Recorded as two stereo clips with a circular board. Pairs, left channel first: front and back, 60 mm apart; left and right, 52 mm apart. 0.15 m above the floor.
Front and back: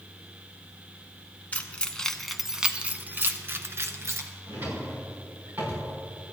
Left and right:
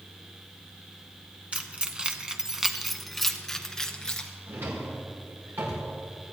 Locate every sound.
1.5 s keys jangling: 40° right, 1.0 m; by 4.3 s 165° left, 1.5 m
4.5 s a drawer: 125° right, 5 m